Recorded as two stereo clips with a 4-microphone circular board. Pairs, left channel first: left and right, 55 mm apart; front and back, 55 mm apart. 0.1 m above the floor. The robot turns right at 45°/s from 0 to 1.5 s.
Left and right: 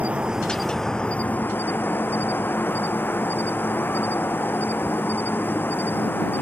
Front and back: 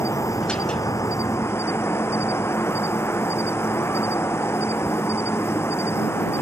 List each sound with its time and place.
0.0 s an insect: 30° right; by 6.4 s 40° left